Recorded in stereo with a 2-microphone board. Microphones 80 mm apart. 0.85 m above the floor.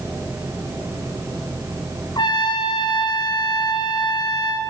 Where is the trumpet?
70° left (ahead or behind), 2.5 m.